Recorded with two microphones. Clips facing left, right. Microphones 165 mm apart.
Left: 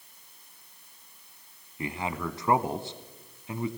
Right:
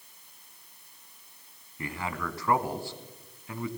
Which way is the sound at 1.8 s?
20° left (ahead or behind).